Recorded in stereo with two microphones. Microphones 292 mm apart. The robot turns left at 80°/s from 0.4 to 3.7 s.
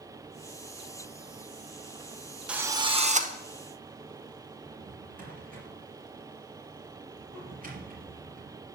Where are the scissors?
I don't hear scissors.